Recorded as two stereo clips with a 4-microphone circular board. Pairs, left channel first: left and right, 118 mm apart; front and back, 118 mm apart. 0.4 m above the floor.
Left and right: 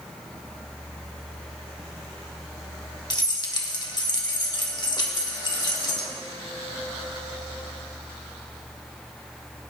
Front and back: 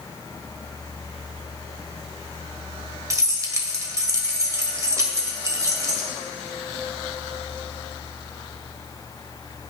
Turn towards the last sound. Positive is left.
turn(degrees=125)